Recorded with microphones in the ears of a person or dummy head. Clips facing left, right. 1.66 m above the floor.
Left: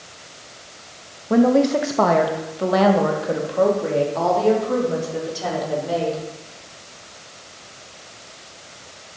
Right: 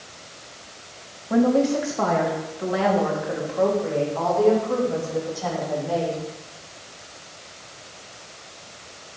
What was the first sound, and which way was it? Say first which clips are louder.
A woman speaking: left 3 dB; 55° left (ahead or behind).